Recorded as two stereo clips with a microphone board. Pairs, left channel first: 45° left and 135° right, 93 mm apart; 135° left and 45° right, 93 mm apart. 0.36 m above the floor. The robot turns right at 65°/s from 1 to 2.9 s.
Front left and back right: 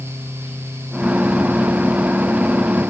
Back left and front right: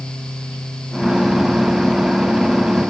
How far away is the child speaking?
I don't hear a child speaking.